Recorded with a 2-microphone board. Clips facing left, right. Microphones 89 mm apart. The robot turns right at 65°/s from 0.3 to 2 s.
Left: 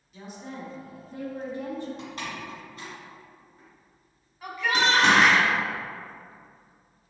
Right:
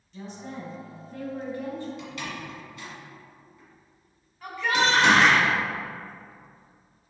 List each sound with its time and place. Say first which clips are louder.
0.1 s a woman speaking: right 1 dB; 5° left (ahead or behind), 1.2 m; by 1.9 s 20° left (ahead or behind), 1.2 m
2.0 s a door slam: even; 40° left (ahead or behind), 1.5 m
4.4 s a shout: right 1 dB; 5° left (ahead or behind), 1.3 m